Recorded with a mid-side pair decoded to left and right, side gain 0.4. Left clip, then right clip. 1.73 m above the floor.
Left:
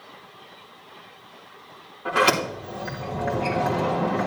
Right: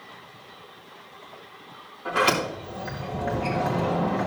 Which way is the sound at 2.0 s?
25° left.